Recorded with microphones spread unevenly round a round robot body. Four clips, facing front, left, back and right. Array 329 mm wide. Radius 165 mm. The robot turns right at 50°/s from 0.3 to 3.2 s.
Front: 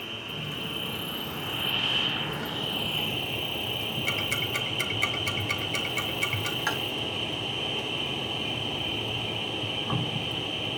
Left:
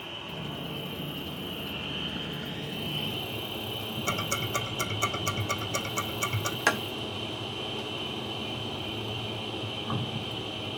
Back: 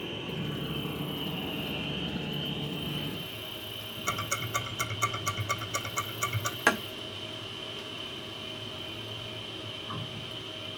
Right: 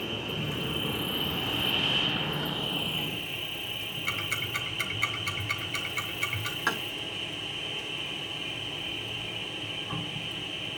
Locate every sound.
0.0 s an insect: 120° right, 1.2 m; by 10.8 s 25° left, 1.2 m
4.1 s ticking: 90° left, 1.5 m
6.7 s tapping: 175° left, 1.2 m